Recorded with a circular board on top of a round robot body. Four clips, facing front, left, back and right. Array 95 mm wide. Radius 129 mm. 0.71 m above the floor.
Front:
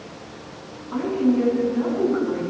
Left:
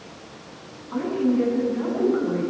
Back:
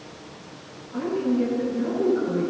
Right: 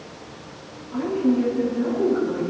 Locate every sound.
0.9 s a woman speaking: 35° left, 9.5 m